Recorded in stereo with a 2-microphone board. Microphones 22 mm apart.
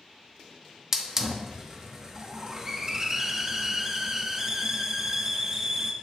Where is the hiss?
20° right (ahead or behind), 0.9 m.